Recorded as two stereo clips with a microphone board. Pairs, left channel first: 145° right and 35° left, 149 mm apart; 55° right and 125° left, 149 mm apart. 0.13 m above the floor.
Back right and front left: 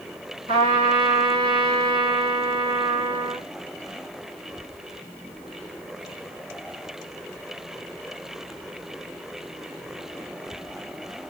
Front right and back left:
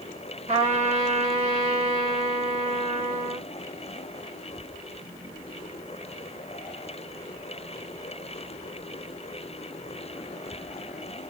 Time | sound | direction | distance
0.5 | a trumpet | 85° left | 1.3 m